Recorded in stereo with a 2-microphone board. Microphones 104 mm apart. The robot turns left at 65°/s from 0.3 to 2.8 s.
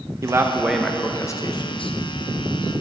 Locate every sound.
0.2 s a man speaking: 150° right, 0.7 m; by 1.9 s 105° left, 0.7 m